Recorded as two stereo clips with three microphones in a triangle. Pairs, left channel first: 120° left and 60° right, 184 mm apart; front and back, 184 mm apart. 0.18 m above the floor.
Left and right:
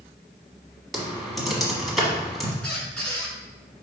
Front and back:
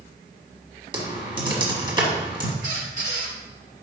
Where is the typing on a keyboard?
150° right, 1.2 m.